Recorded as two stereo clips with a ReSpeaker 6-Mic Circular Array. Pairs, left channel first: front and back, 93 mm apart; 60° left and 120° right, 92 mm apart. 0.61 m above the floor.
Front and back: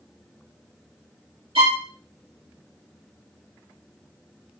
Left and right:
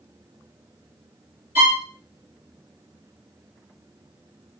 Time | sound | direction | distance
1.6 | a violin | 170° left | 1.5 m